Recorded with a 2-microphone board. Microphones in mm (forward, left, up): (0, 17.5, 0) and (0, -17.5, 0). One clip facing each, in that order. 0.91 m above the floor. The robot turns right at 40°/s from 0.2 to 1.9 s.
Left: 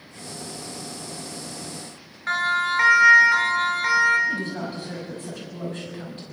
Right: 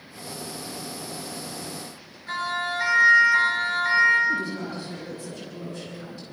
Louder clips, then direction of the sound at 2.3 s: Left 6 dB; 70° left (ahead or behind).